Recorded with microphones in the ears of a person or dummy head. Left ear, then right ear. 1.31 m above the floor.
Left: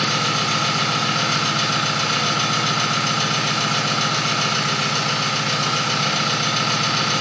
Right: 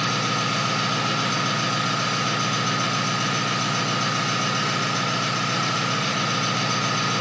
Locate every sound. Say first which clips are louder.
0.0 s an engine running: left 4 dB; 60° left (ahead or behind), 1.6 m